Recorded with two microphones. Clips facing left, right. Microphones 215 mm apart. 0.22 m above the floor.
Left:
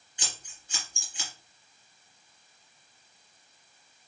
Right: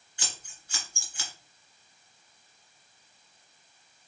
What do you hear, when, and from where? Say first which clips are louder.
0.2 s scissors: even; 20° left (ahead or behind), 2 m